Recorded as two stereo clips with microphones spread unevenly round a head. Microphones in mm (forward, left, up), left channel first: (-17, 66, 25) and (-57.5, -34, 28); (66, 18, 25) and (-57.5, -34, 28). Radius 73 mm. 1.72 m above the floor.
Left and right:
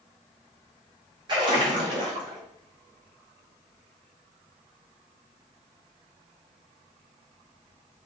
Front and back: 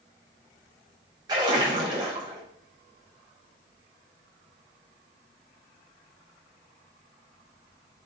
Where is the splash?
115° right, 0.6 m.